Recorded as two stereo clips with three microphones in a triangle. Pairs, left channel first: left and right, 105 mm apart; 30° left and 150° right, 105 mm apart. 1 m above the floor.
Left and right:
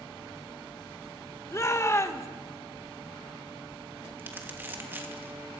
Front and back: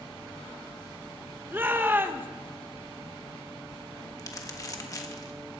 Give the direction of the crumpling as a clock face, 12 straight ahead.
1 o'clock.